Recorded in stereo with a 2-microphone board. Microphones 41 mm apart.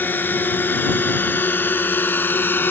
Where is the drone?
50° left (ahead or behind); by 2.7 s 55° left (ahead or behind).